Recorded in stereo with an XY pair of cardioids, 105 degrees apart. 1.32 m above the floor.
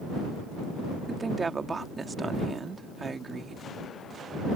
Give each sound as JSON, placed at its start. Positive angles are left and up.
{"t": 1.1, "sound": "a woman speaking", "azimuth_deg": -30}